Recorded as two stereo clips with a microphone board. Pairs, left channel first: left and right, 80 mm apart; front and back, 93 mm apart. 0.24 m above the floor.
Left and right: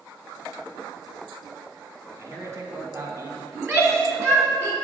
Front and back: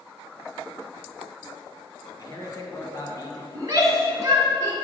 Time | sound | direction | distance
2.2 | a man speaking | 45° right | 1.9 m
3.5 | a shout | 135° right | 2.5 m